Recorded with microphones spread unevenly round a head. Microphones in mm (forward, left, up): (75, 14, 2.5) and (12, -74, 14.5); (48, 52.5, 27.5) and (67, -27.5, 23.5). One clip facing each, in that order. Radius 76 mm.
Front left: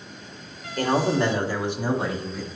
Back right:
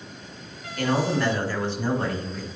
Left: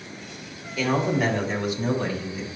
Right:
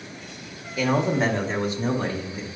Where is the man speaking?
Straight ahead, 1.8 m; by 2.5 s 30° right, 3.5 m.